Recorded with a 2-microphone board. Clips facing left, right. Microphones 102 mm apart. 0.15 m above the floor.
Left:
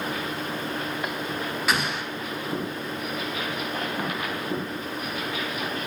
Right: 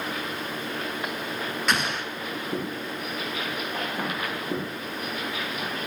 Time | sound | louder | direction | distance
1.7 | an explosion | even | 5° left (ahead or behind) | 1.4 m